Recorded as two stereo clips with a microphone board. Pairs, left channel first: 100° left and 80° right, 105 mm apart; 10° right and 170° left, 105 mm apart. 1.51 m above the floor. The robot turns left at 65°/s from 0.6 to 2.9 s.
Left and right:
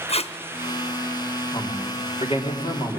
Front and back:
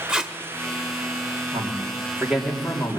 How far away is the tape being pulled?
About 0.9 m.